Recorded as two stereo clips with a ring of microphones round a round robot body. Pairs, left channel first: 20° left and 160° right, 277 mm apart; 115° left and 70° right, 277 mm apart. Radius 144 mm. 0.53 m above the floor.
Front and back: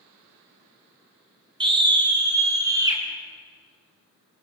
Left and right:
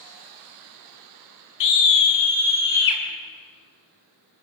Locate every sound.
1.6 s a scream: 130° left, 4 m; by 3.0 s 125° left, 5.5 m